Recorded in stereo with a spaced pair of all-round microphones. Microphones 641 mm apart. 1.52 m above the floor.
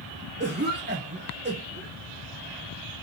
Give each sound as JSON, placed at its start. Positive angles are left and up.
{"t": 0.4, "sound": "a cough", "side_deg": -15, "distance_m": 1.2}